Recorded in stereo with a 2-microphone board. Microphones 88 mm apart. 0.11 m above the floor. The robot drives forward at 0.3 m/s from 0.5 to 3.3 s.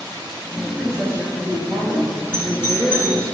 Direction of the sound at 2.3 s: 25° left (ahead or behind).